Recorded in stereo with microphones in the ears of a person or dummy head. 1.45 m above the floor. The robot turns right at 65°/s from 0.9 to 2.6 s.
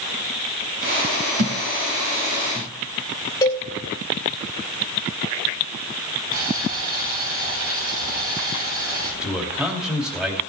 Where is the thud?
60° right (ahead or behind), 1.5 m; by 2.7 s 15° right (ahead or behind), 1.5 m.